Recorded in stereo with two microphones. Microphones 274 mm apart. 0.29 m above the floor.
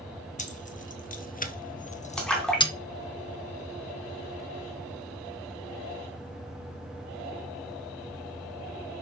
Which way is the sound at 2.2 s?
5° left (ahead or behind).